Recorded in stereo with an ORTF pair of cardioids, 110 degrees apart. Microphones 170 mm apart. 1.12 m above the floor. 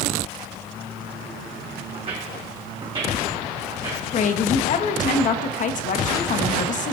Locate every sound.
1.9 s footsteps: 35° right, 3.5 m; by 4.0 s 20° right, 4 m
4.1 s a woman speaking: 50° left, 1.2 m